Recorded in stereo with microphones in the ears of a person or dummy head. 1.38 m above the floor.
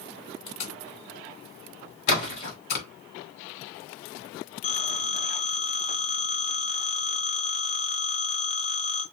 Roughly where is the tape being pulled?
Left.